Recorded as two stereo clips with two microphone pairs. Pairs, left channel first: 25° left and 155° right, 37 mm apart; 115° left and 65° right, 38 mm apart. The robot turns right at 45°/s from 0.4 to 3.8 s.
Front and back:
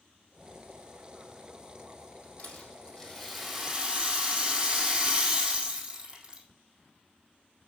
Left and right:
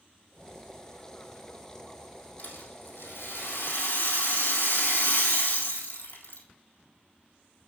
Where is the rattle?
70° left, 4 m; by 6.4 s 135° left, 4 m.